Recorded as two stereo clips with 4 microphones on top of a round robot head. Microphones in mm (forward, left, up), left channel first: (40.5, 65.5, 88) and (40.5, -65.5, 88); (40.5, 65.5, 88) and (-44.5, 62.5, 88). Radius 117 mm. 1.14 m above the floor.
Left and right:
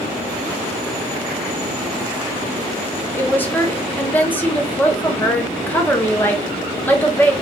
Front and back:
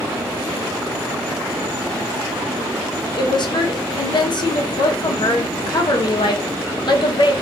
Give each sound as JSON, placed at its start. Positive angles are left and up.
{"t": 3.2, "sound": "a woman speaking", "azimuth_deg": 15, "distance_m": 0.8}